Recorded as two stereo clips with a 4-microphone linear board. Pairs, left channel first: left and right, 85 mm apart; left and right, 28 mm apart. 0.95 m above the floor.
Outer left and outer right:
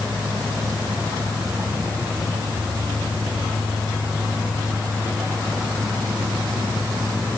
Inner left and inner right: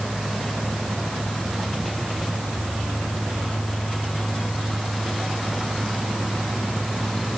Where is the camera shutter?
I don't hear a camera shutter.